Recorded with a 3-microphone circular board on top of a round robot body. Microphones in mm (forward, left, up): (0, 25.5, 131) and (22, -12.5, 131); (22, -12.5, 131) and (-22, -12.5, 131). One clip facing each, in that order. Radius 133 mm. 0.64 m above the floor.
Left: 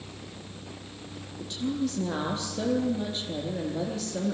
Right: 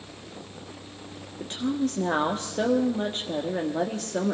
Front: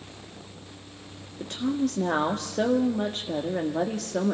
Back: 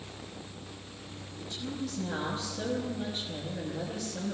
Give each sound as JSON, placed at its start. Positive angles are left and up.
{"t": 1.4, "sound": "a woman speaking", "azimuth_deg": -20, "distance_m": 1.6}